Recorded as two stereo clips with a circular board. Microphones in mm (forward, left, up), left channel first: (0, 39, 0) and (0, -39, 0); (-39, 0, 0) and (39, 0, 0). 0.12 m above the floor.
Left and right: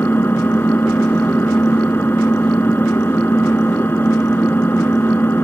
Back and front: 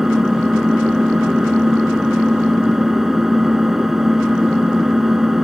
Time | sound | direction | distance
0.0 | an engine running | 80° left | 1.3 m